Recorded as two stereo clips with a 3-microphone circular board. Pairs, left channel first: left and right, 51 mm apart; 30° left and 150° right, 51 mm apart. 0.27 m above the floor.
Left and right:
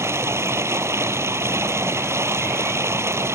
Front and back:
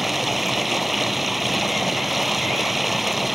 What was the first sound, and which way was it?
Running water, 60° right.